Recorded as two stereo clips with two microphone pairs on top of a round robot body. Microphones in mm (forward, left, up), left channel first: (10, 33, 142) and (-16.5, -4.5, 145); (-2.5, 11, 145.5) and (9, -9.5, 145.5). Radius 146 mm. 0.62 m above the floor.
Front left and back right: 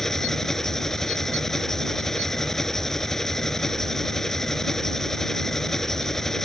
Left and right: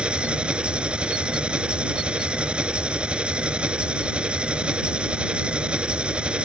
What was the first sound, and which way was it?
An engine running, 30° right.